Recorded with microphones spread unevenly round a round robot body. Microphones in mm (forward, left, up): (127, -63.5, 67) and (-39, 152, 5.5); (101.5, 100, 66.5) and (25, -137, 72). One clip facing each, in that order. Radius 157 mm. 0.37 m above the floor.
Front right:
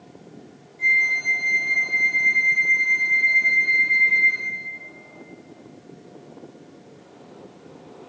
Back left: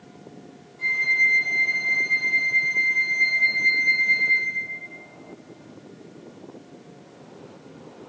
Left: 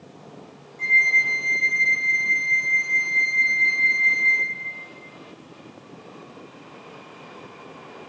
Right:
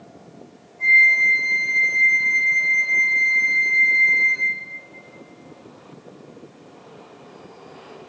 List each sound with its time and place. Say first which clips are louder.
0.8 s a flute: front right 2 dB, right 3 dB; 60° left, 4.5 m